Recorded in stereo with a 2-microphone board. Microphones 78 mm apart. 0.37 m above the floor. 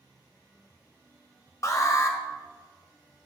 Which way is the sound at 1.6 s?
45° left (ahead or behind).